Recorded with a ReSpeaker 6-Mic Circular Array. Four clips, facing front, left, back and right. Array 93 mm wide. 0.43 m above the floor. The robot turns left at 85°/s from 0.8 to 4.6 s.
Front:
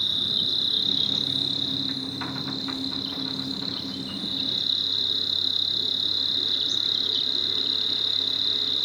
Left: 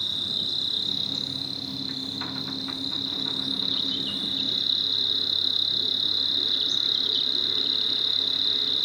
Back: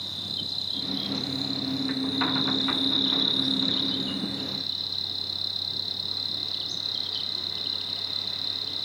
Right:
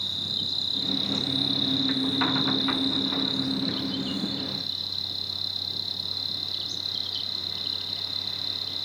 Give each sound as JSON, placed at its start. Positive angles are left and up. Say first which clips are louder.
{"t": 0.0, "sound": "an insect", "louder": "left 1 dB, front 5 dB", "azimuth_deg": 20, "distance_m": 1.4}